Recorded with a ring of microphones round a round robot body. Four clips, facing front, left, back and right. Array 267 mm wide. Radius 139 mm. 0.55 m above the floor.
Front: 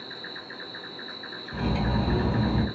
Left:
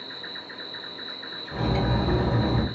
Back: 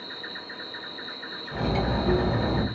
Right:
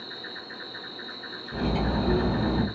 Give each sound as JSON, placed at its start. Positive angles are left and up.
{"t": 0.0, "sound": "an insect", "azimuth_deg": 150, "distance_m": 1.6}
{"t": 1.5, "sound": "cutlery clinking", "azimuth_deg": 135, "distance_m": 1.4}